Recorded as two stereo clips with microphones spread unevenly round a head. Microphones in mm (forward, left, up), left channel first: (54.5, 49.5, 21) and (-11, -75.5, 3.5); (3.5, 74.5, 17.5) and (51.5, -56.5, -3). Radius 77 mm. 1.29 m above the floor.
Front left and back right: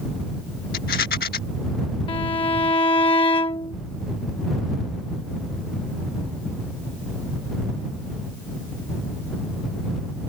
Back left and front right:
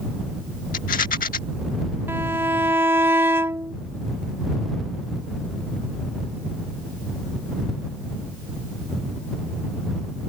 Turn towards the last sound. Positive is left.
turn(degrees=5)